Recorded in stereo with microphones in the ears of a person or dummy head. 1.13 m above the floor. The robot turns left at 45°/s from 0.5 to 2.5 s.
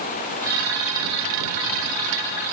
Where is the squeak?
I don't hear a squeak.